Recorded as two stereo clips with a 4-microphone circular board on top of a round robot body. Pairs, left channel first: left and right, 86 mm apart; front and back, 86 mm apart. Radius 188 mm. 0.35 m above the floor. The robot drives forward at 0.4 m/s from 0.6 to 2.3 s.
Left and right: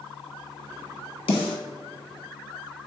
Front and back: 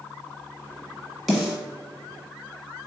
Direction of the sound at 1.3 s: 90° left.